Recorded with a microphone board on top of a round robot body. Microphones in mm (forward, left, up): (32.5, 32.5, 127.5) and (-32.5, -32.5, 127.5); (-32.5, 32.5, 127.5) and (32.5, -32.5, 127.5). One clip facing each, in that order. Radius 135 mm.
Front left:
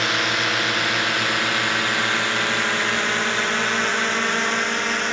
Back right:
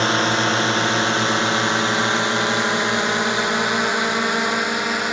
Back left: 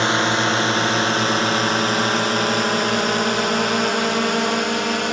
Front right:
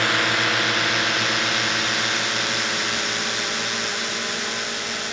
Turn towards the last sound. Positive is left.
turn(degrees=145)